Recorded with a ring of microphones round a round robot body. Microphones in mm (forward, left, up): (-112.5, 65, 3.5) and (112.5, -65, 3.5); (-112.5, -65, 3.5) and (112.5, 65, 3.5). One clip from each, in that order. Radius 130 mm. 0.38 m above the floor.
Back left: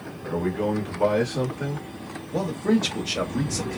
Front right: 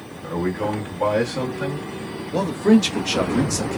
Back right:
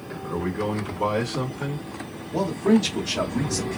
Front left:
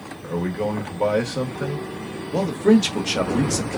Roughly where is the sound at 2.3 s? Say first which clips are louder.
Front right 6 dB, front left 3 dB; ahead left.